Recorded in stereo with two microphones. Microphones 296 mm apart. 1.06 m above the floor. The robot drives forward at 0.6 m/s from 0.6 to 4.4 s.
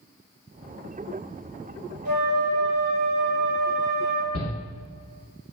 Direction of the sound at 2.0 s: 75° right (ahead or behind).